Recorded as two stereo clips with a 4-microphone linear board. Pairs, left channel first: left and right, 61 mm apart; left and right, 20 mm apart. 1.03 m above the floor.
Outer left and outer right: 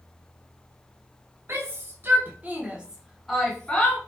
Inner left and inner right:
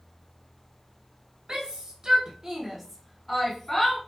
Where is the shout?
45° right (ahead or behind), 1.2 m; by 4.0 s 20° left (ahead or behind), 0.8 m.